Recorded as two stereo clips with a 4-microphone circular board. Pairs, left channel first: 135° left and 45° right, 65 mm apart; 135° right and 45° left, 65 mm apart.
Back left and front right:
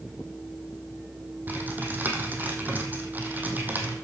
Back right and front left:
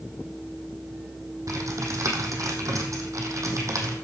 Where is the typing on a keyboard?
15° left, 2 m.